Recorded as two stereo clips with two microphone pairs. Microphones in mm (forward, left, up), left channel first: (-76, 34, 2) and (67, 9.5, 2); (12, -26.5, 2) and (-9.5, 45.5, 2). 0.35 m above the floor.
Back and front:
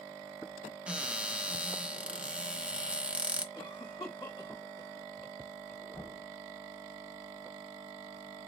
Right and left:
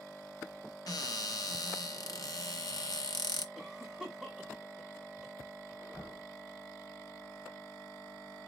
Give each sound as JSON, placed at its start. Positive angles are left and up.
{"t": 0.9, "sound": "a cupboard door", "azimuth_deg": -90, "distance_m": 1.0}
{"t": 3.5, "sound": "a cough", "azimuth_deg": -165, "distance_m": 1.6}
{"t": 5.9, "sound": "knocking", "azimuth_deg": -110, "distance_m": 2.5}